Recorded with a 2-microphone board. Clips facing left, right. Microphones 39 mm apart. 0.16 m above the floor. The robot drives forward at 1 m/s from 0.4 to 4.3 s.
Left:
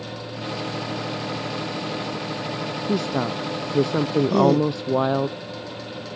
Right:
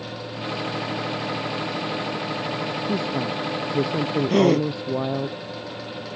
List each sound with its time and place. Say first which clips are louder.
2.9 s a woman speaking: left 4 dB; 75° left (ahead or behind)
4.3 s a gasp: even; 65° right (ahead or behind)